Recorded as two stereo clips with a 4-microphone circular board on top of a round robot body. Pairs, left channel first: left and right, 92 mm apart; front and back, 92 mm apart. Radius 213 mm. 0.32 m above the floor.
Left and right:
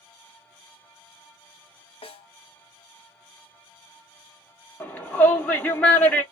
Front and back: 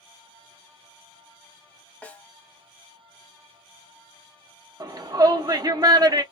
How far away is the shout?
About 1.1 m.